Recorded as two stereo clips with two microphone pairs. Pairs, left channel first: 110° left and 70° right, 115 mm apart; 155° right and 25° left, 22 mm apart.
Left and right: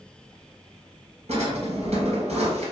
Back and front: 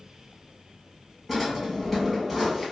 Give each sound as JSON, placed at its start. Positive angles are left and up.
{"t": 1.3, "sound": "a drawer", "azimuth_deg": -70, "distance_m": 1.1}